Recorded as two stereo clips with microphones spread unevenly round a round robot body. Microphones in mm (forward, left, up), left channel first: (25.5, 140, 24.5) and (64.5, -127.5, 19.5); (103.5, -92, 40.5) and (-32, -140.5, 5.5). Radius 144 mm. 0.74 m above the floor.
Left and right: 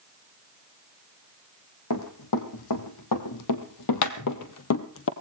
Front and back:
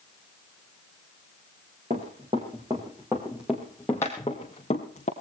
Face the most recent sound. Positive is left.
turn(degrees=65)